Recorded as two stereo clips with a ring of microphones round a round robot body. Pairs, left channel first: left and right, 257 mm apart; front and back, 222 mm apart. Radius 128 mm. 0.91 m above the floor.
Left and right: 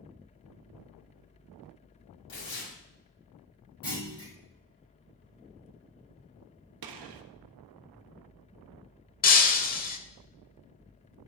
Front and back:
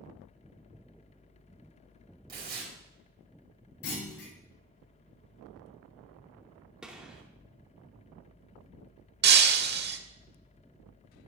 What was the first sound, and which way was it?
Tearing paper, 135° left.